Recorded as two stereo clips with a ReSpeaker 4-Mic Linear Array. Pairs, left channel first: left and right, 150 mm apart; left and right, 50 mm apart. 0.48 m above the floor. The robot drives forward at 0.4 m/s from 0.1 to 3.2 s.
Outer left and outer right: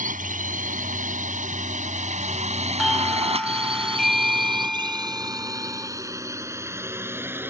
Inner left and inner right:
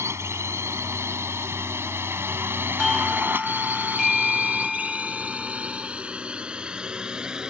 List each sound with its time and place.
0.0 s a drone: 75° right (ahead or behind); by 7.5 s 15° right (ahead or behind)
2.8 s a doorbell: centre (ahead or behind)